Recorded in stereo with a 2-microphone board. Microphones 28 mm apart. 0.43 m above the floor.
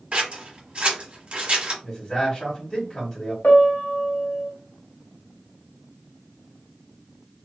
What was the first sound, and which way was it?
Scissors, 45° right (ahead or behind).